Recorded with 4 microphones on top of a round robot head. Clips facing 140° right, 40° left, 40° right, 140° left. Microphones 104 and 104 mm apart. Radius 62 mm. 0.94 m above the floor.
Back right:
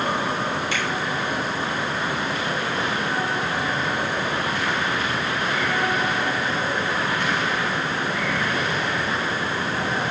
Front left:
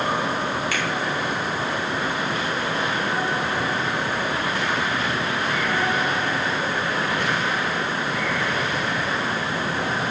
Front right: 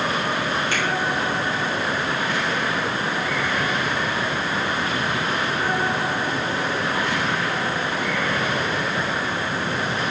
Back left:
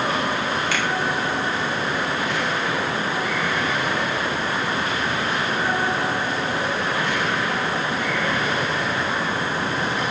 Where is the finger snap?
155° left, 2.5 m.